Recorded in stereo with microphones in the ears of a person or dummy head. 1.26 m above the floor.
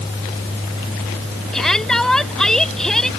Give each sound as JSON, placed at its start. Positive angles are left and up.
{"t": 1.5, "sound": "a shout", "side_deg": 0}